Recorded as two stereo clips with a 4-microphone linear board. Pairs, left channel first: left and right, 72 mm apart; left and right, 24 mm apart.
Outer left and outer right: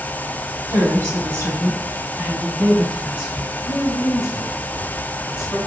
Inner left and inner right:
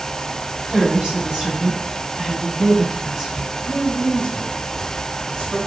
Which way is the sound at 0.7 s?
45° right (ahead or behind).